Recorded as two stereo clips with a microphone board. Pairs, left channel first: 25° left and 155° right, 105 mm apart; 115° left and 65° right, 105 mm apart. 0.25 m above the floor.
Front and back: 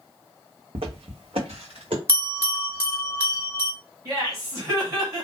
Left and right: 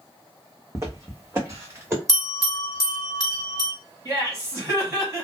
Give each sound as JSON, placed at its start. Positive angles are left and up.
{"t": 0.8, "sound": "footsteps", "azimuth_deg": -125, "distance_m": 1.0}
{"t": 2.1, "sound": "a bell", "azimuth_deg": 145, "distance_m": 1.6}
{"t": 4.0, "sound": "laughter", "azimuth_deg": -120, "distance_m": 1.6}